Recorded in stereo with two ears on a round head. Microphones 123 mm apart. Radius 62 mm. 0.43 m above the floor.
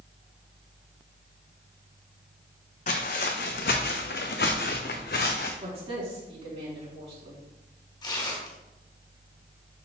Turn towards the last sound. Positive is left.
turn(degrees=30)  # may be behind; listen again after turning